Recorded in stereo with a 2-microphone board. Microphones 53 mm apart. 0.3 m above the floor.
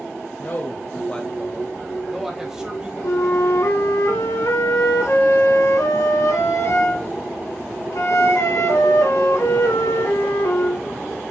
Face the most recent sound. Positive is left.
turn(degrees=70)  # may be behind; listen again after turning